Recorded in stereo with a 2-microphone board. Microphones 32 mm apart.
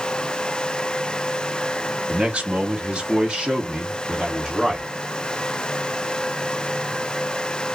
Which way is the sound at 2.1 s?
40° right (ahead or behind).